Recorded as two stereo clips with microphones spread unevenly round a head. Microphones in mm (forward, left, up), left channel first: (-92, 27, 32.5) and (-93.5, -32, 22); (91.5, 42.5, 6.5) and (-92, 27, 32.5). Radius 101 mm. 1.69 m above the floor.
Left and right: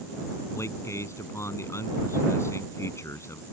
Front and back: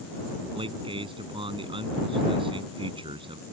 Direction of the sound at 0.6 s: 125° left.